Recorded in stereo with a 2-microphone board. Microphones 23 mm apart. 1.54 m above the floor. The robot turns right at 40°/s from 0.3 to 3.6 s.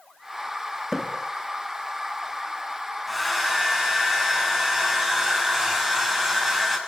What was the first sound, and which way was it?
A splash, 15° left (ahead or behind).